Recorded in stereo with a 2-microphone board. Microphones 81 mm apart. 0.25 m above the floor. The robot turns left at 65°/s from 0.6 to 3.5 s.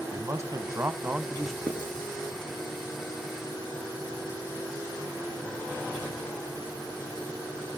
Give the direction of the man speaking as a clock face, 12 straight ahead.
4 o'clock.